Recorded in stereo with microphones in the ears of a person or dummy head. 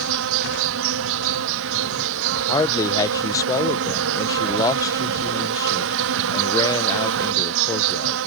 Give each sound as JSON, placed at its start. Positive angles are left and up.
{"t": 0.0, "sound": "an insect", "side_deg": -70}
{"t": 2.5, "sound": "a man speaking", "side_deg": 15}